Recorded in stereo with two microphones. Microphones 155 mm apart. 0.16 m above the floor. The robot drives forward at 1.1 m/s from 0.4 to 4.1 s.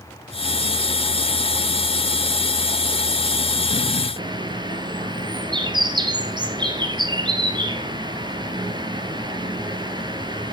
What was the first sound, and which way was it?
A bird, 30° right (ahead or behind).